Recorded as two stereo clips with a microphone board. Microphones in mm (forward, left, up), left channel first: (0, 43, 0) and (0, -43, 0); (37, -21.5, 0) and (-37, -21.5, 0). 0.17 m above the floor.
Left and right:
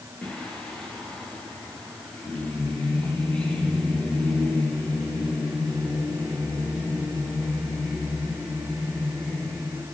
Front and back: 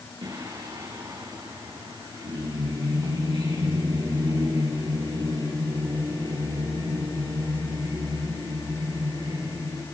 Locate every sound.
0.2 s singing: 170° left, 8.5 m